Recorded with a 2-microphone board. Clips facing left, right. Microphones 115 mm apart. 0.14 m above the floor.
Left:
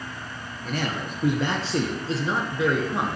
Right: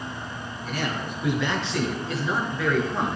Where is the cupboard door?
No cupboard door in this recording.